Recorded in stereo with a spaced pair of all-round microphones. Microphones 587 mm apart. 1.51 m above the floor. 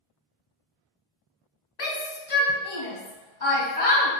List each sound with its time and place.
1.8 s a shout: 65° left (ahead or behind), 1.1 m